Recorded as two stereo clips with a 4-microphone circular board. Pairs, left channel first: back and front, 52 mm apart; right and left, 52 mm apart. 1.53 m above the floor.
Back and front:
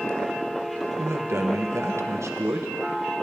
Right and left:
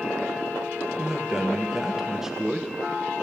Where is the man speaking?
10° left, 1.0 m.